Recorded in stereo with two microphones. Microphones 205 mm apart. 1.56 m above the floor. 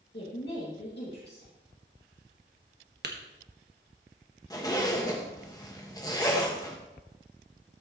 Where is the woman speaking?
50° left (ahead or behind), 2.5 m.